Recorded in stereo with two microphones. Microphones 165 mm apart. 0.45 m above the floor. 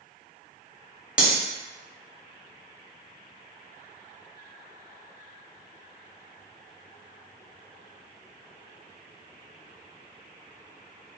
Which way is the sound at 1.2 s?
5° right (ahead or behind).